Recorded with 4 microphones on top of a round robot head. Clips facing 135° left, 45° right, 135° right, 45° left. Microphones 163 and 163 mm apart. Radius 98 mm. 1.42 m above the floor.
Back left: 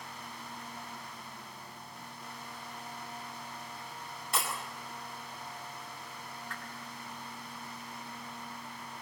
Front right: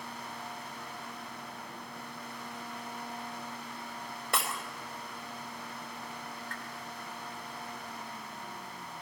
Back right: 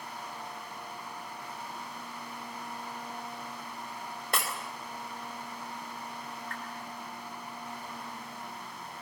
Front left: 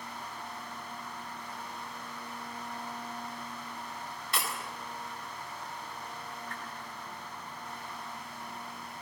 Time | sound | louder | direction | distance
4.3 | breaking glass | front right 1 dB, back right 2 dB | 90° right | 3.5 m
6.5 | a whoosh | front right 1 dB, back right 1 dB | 120° left | 4 m